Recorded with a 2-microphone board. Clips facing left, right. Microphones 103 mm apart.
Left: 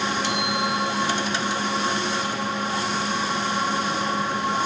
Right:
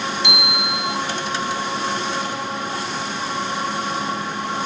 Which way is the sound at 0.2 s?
40° left (ahead or behind).